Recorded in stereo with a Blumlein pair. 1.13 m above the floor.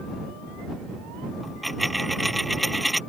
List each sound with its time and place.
1.4 s a dropped coin: straight ahead